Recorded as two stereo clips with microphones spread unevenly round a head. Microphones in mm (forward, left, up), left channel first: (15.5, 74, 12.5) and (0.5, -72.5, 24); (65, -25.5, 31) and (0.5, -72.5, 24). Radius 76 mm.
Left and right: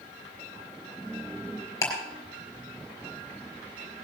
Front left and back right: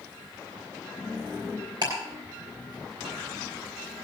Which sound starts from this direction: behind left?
Ticking, at 1.8 s.